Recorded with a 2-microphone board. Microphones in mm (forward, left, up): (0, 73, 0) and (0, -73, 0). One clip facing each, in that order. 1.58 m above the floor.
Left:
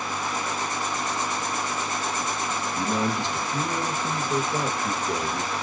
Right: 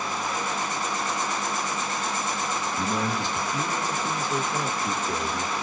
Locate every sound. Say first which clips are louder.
2.8 s a man speaking: left 3 dB; 20° left (ahead or behind), 1.6 m